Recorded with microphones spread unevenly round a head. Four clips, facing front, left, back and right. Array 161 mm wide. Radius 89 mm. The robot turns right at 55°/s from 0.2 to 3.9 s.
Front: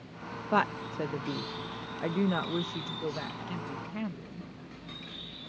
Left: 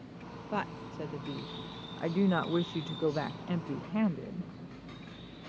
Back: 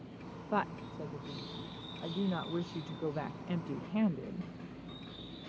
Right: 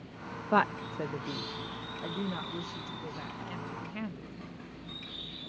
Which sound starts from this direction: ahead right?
A woman speaking, at 0.5 s.